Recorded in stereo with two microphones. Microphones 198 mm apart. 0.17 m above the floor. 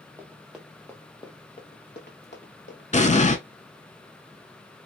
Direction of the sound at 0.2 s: 10° right (ahead or behind).